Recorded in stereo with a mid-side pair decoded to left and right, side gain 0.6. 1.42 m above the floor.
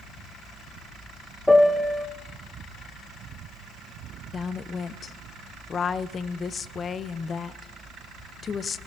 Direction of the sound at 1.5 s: 5° left.